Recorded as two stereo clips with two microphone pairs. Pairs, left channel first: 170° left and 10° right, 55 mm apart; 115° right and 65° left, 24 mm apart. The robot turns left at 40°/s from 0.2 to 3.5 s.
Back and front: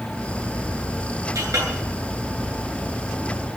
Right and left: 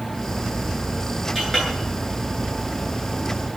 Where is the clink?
15° right, 9.5 m; by 1.7 s 30° right, 9.5 m.